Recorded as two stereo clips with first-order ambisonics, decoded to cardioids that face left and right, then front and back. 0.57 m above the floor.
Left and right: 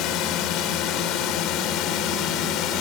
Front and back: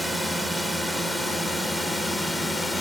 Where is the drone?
90° left; by 2.8 s 80° left.